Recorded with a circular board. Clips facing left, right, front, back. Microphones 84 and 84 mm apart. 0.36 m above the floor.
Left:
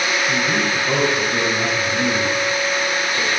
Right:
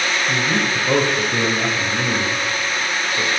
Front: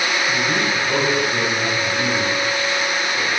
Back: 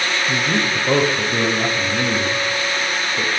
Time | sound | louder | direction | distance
0.3 | a man speaking | even, even | 170° right | 1.1 m